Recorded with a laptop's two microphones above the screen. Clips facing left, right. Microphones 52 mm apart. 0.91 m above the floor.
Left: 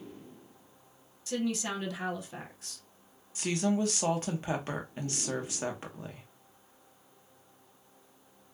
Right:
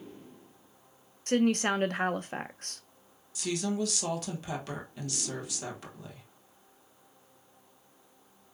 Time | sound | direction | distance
1.3 | a woman speaking | 50° right (ahead or behind) | 0.5 m
3.4 | a woman speaking | 35° left (ahead or behind) | 0.8 m